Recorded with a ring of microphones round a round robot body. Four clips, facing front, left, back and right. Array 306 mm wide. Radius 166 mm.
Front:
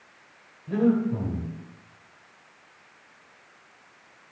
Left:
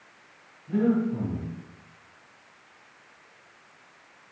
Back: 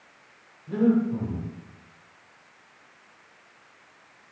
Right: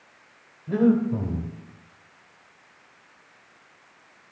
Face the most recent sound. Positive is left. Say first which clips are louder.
# right 4 dB, back 1 dB
turn(degrees=-80)